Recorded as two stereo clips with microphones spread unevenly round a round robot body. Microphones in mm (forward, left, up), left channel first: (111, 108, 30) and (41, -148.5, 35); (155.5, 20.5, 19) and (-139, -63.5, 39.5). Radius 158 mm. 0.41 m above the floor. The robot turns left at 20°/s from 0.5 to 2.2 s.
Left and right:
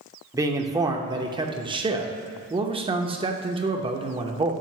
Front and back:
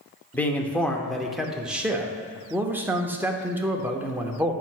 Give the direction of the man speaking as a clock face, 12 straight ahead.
2 o'clock.